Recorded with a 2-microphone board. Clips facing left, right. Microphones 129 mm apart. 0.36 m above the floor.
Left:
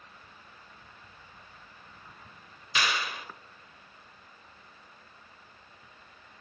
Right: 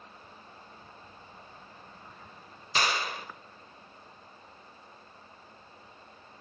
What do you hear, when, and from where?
2.8 s a clap: 35° right (ahead or behind), 1.0 m